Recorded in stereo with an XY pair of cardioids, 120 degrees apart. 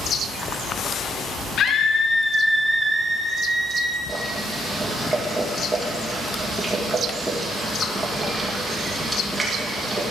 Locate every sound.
1.6 s a scream: 60° left, 0.6 m; by 4.0 s 30° right, 1.4 m
4.1 s boiling: 20° right, 2.5 m